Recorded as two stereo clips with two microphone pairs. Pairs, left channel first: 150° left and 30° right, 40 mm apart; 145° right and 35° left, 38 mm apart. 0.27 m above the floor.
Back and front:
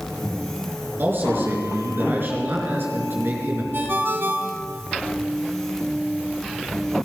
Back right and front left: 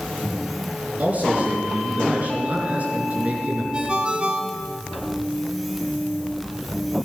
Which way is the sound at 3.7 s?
25° right.